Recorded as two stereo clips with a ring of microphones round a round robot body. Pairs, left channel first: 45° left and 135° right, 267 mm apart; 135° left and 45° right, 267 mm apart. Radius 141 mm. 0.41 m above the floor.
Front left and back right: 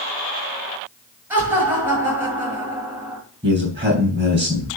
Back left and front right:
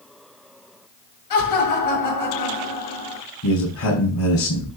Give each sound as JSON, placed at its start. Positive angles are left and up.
{"t": 1.3, "sound": "laughter", "azimuth_deg": 140, "distance_m": 8.0}
{"t": 3.4, "sound": "a man speaking", "azimuth_deg": 155, "distance_m": 4.5}